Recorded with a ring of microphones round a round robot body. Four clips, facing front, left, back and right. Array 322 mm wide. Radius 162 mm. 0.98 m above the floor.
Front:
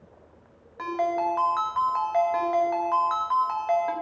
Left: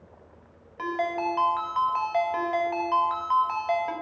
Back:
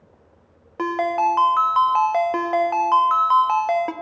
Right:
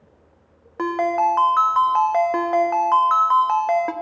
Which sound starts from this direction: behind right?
A ringtone, at 0.8 s.